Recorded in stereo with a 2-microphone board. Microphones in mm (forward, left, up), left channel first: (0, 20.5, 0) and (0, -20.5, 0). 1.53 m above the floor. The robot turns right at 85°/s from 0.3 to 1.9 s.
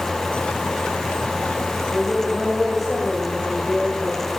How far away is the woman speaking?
About 5.5 m.